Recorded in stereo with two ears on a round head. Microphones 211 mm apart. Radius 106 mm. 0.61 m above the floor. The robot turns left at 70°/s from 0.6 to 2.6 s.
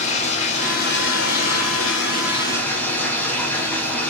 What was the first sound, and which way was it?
Running water, 150° left.